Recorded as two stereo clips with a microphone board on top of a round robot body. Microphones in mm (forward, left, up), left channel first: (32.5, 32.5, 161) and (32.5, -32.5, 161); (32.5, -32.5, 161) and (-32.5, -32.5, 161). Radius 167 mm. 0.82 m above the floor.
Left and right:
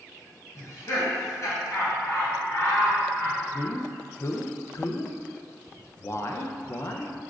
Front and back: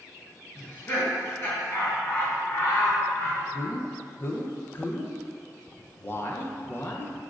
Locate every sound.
0.6 s laughter: 50° left, 1.5 m
3.5 s a man speaking: 50° left, 0.5 m